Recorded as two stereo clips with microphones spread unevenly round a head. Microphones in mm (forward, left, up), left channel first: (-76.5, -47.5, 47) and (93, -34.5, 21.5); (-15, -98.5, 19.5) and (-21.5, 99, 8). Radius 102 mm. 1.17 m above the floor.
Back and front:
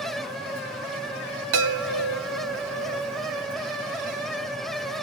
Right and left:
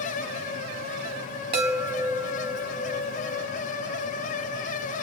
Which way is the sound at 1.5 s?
30° left.